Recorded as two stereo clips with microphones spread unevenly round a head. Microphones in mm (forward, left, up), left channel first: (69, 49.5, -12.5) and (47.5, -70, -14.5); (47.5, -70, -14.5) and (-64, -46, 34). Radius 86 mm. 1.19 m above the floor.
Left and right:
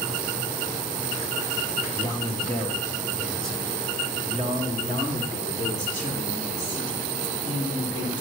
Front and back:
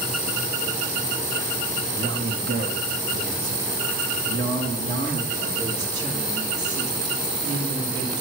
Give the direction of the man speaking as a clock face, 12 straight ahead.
7 o'clock.